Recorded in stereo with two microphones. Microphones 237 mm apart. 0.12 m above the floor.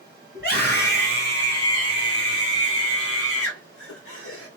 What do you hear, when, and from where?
0.3 s a scream: 50° left (ahead or behind), 1.9 m; by 4.5 s 70° left (ahead or behind), 3.5 m